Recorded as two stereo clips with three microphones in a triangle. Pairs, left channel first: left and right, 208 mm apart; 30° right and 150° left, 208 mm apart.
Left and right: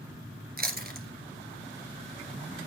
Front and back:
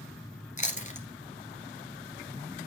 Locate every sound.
0.6 s chewing: 70° right, 1.9 m